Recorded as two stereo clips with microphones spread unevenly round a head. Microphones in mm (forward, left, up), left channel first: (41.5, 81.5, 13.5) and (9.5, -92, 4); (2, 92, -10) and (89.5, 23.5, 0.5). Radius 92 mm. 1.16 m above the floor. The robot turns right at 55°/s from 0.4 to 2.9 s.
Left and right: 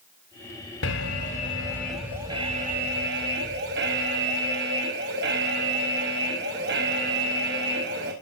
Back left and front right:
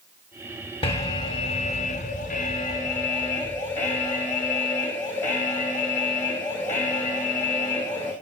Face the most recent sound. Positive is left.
turn(degrees=-140)